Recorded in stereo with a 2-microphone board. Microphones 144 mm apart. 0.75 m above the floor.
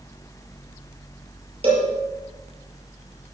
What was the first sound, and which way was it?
A cowbell, 45° right (ahead or behind).